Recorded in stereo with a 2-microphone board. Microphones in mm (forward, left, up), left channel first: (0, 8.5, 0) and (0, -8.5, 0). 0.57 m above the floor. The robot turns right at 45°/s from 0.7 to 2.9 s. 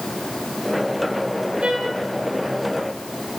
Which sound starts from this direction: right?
A trumpet, at 1.6 s.